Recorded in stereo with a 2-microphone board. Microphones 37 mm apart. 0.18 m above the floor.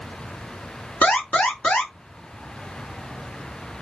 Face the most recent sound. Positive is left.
turn(degrees=45)  # may be behind; listen again after turning